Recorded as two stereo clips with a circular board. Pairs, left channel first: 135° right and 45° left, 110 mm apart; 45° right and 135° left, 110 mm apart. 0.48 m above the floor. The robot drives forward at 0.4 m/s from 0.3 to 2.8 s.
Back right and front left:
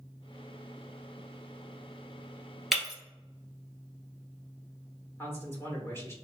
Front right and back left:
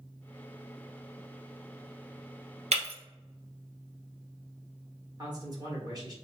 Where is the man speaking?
170° left, 1.3 m.